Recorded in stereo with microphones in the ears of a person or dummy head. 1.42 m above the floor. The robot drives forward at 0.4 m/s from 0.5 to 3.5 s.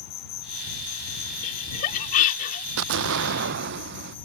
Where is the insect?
30° left (ahead or behind); by 4.2 s 25° left (ahead or behind).